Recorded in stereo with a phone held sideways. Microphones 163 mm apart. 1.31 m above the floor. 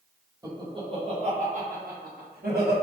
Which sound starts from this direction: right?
Laughter, at 0.4 s.